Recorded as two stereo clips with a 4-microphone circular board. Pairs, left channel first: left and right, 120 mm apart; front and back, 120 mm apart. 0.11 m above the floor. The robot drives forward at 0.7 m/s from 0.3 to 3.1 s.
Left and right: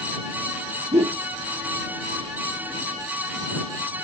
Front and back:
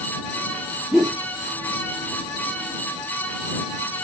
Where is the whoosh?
90° right, 1.0 m; by 1.2 s 100° right, 1.0 m.